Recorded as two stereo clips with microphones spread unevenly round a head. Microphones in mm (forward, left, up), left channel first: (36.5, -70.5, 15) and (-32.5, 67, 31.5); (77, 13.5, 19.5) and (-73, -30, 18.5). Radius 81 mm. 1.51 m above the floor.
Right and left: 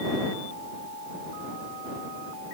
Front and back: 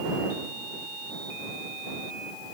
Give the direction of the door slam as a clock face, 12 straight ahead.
No door slam in this recording.